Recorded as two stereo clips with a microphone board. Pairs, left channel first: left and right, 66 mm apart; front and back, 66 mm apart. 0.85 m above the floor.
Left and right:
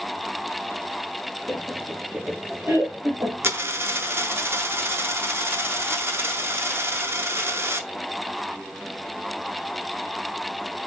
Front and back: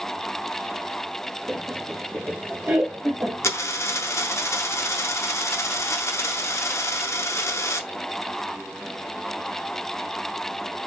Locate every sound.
1.5 s laughter: 100° left, 0.9 m; by 3.6 s 120° right, 1.6 m
3.4 s a dropped coin: 40° right, 0.6 m